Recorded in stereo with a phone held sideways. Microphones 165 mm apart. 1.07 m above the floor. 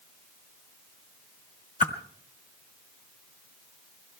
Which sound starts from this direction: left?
A whoosh, at 1.8 s.